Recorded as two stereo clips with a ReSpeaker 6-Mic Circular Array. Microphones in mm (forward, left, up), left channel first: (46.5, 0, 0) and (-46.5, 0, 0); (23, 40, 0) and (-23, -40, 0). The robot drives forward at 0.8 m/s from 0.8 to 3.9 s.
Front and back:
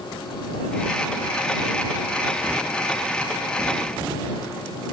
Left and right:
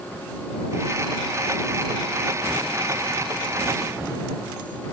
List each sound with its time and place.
Only background noise.